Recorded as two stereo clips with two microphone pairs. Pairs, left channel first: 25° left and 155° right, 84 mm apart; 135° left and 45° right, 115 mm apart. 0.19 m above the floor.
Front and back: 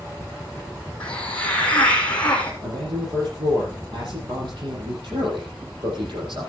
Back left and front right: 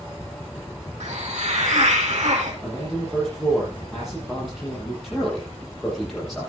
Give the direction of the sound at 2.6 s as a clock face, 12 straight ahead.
5 o'clock.